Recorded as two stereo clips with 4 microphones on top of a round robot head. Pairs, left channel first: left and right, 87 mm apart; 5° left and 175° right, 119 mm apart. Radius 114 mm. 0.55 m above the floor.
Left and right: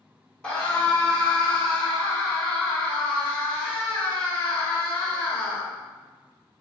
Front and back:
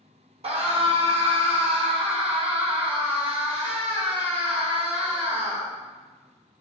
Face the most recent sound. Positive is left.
turn(degrees=165)